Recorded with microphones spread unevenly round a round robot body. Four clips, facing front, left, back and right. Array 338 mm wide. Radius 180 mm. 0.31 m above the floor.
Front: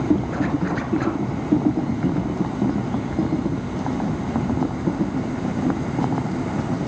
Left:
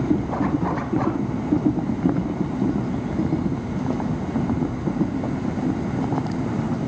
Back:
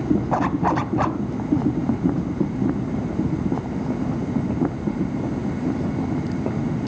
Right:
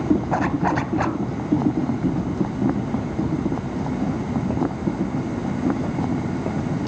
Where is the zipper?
140° right, 1.1 m.